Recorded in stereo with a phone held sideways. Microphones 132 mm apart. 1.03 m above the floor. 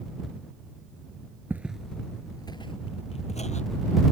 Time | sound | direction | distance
1.5 | footsteps | 15° right (ahead or behind) | ?